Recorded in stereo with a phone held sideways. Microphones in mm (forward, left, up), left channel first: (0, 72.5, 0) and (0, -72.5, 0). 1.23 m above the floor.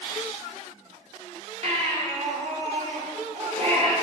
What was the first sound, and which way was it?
A baby crying, 45° right (ahead or behind).